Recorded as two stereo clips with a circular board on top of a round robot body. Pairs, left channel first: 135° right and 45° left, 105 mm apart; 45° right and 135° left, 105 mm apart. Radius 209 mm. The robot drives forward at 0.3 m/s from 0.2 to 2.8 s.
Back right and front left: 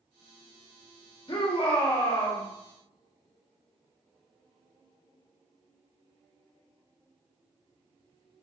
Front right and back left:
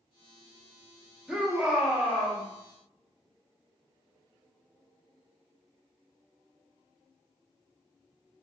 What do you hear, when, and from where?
1.3 s a shout: 145° right, 1.2 m; by 2.4 s 155° right, 1.4 m